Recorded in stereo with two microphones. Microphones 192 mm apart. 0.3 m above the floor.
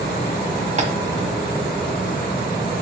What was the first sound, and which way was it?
Tapping, 40° right (ahead or behind).